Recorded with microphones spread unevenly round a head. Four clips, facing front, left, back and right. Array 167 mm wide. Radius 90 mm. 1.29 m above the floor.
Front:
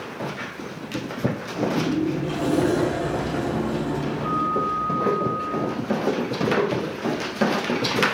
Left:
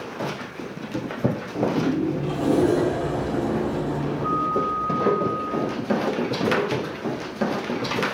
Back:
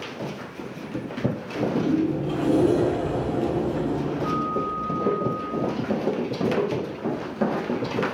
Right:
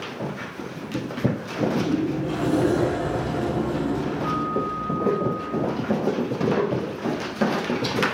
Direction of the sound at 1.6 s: 125° left.